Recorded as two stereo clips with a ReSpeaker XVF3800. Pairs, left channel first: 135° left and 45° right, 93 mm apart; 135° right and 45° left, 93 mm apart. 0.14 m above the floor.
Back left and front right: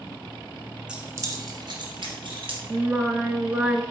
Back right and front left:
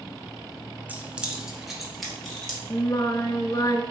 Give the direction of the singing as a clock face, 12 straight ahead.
4 o'clock.